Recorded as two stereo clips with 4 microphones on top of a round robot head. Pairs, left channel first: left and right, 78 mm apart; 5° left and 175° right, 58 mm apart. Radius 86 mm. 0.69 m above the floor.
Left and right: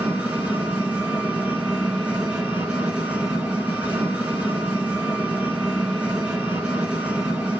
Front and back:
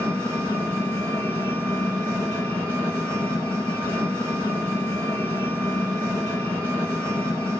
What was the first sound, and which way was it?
An engine running, 20° right.